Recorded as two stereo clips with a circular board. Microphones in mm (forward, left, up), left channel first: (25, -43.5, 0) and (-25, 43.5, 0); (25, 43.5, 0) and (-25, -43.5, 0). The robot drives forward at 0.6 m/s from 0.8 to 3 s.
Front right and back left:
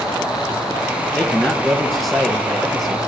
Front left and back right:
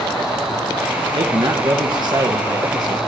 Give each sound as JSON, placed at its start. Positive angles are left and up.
{"t": 1.1, "sound": "a man speaking", "azimuth_deg": -140, "distance_m": 2.5}